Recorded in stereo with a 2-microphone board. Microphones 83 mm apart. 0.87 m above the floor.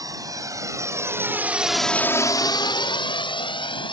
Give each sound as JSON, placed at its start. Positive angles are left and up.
{"t": 0.0, "sound": "a drone", "side_deg": -50}